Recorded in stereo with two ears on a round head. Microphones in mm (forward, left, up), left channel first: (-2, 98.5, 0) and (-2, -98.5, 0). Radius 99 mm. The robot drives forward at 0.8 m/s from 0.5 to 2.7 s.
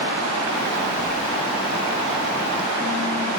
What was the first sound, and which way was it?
A phone buzzing, 85° right.